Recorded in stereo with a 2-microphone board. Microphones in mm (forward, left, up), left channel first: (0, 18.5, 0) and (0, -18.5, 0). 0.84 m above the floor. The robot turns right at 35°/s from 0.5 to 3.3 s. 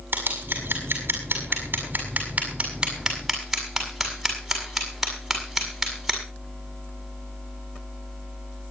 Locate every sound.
0.1 s scissors: 75° right (ahead or behind), 6.5 m; by 6.2 s 5° right (ahead or behind), 6.5 m